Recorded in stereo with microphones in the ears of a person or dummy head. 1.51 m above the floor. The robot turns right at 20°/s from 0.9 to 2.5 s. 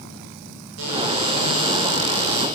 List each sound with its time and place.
0.8 s a cupboard door: 110° right, 10 m; by 2.5 s 80° right, 10 m